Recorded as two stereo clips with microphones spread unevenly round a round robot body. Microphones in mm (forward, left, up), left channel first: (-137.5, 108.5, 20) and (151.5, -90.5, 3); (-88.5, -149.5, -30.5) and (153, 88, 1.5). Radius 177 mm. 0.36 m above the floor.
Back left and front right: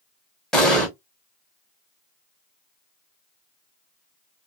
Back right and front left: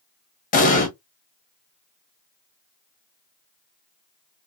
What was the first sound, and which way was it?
An explosion, 120° right.